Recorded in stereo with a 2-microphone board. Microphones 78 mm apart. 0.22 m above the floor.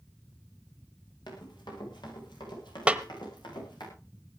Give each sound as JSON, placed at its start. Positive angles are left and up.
{"t": 1.3, "sound": "running footsteps", "side_deg": 85, "distance_m": 9.0}
{"t": 2.9, "sound": "a snare drum", "side_deg": -15, "distance_m": 1.0}